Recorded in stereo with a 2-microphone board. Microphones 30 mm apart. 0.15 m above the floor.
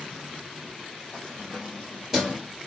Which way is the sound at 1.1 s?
25° left (ahead or behind).